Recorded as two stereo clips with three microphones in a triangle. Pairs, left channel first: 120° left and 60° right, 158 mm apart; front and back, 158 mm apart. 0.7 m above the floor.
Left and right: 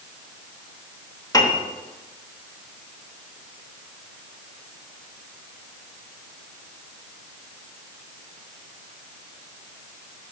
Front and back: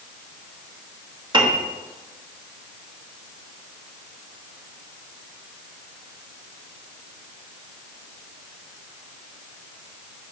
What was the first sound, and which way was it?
A piano, 165° left.